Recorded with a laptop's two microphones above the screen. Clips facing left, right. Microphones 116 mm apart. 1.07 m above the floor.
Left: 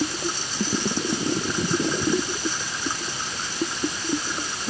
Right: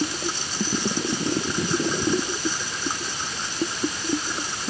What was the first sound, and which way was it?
Only background noise.